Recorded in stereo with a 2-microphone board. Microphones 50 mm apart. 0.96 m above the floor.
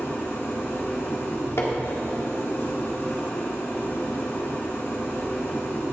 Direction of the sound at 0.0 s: 50° left (ahead or behind).